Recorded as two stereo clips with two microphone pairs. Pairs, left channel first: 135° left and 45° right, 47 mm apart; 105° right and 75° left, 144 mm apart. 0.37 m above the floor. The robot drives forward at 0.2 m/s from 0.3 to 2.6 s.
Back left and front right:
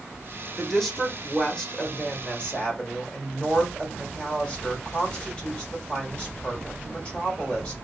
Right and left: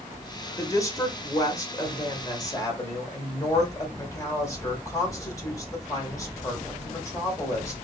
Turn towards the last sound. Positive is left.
turn(degrees=-160)